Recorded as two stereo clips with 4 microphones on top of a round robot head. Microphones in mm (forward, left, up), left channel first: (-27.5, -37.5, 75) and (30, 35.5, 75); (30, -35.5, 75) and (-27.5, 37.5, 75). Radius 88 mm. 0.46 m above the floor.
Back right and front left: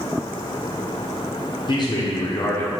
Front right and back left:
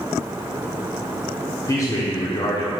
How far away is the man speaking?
About 1.2 m.